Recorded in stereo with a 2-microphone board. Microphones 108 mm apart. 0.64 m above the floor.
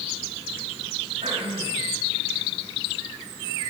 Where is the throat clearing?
65° right (ahead or behind), 4 m.